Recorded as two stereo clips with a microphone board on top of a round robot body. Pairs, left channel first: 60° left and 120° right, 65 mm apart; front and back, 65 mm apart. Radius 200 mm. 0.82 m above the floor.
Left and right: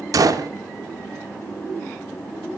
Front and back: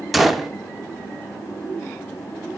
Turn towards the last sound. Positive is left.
turn(degrees=-90)